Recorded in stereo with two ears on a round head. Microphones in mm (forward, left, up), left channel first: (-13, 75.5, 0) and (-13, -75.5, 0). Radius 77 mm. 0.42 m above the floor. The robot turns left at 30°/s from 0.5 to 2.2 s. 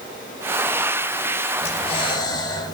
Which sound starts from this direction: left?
Breathing, at 1.6 s.